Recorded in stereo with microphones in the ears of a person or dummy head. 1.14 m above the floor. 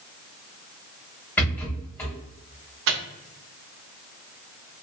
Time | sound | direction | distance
1.4 | a rattle | 10° left (ahead or behind) | 1.5 m
2.9 | a microwave | 75° right (ahead or behind) | 0.6 m